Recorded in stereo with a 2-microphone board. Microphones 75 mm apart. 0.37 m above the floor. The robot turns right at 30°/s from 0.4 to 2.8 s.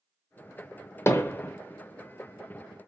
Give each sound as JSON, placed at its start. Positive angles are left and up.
{"t": 1.1, "sound": "hammering", "side_deg": 35, "distance_m": 0.9}